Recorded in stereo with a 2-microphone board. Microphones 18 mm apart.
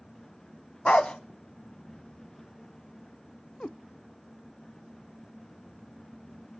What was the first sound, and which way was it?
A dog barking, 70° left (ahead or behind).